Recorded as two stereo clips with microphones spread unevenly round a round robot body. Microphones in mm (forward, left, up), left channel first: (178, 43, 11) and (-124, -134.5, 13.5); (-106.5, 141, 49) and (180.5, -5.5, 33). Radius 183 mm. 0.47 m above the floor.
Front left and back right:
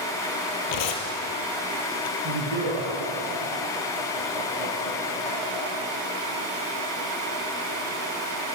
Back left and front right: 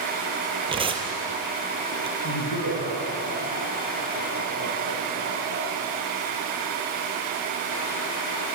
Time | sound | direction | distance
0.7 | tearing paper | 50° left | 4 m
2.2 | laughter | 170° right | 7 m